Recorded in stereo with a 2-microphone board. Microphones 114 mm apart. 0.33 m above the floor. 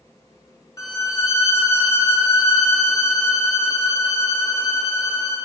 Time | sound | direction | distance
0.8 | a violin | 30° left (ahead or behind) | 1.0 m